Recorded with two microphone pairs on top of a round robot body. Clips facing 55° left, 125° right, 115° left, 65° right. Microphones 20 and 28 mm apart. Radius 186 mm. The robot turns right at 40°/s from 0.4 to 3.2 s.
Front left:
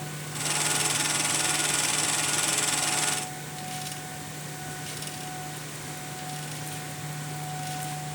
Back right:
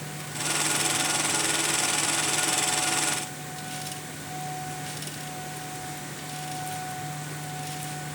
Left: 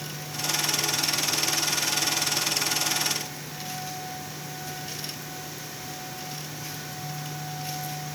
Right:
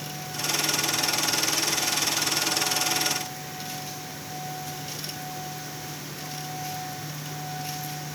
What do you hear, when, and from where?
Only background noise.